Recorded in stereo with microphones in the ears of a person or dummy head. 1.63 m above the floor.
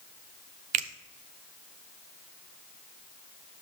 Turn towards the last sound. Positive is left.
turn(degrees=-40)  # may be behind; listen again after turning